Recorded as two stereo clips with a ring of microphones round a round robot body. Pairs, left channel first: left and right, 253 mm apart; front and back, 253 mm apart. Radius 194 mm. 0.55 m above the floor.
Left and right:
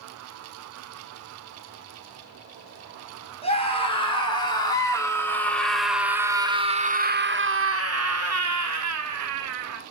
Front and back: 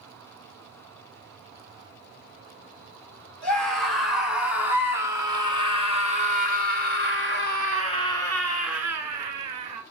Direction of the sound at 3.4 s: 25° left.